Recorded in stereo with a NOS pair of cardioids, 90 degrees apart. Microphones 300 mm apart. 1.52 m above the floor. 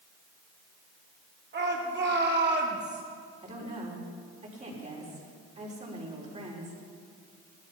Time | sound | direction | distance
1.5 | a shout | 35° right | 5 m
3.4 | a woman speaking | 25° right | 5 m